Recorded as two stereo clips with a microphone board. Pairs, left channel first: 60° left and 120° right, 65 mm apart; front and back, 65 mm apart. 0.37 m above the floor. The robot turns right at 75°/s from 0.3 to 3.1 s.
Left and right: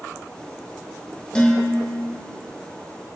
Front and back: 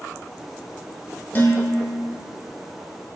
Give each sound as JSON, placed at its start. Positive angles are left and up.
{"t": 1.4, "sound": "dishes clattering", "azimuth_deg": 0, "distance_m": 0.6}